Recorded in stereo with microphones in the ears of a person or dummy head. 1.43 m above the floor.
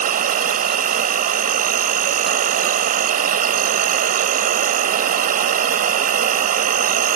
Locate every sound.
0.0 s an insect: 40° right (ahead or behind)